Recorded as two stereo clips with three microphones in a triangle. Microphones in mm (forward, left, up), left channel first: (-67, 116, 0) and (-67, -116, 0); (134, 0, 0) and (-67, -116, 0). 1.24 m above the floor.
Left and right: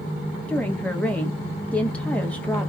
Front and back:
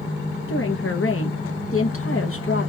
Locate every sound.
0.5 s a woman speaking: 5° left, 1.2 m